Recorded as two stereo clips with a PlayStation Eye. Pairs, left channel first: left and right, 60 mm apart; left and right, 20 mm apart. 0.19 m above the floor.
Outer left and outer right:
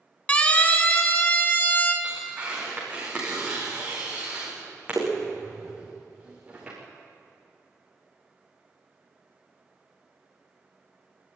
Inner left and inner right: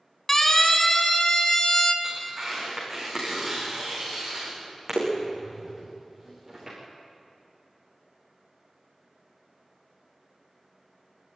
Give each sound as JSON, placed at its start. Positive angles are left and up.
{"t": 0.3, "sound": "a siren", "side_deg": 20, "distance_m": 2.0}
{"t": 2.0, "sound": "tearing paper", "side_deg": -15, "distance_m": 8.5}